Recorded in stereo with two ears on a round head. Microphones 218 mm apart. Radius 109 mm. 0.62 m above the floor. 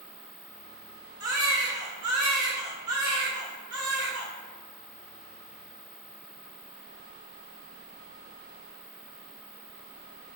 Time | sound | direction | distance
1.2 | a baby crying | 15° right (ahead or behind) | 1.1 m